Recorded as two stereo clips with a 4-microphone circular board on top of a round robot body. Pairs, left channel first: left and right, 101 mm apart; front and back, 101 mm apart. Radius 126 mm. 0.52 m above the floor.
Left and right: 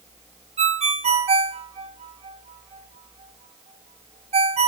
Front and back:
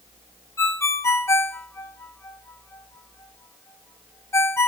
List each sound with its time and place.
0.6 s a ringtone: 65° right, 1.5 m